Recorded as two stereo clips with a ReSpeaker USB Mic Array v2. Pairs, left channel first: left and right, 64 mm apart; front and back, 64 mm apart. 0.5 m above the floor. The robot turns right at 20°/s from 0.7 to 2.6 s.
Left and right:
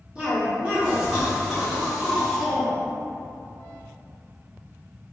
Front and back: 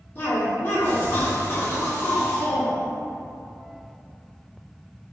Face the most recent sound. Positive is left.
turn(degrees=10)